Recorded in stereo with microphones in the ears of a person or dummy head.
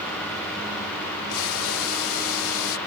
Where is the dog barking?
I don't hear a dog barking.